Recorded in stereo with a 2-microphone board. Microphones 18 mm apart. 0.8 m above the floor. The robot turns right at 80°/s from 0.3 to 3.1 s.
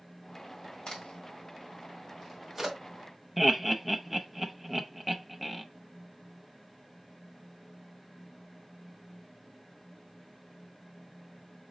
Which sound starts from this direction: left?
A crack, at 0.9 s.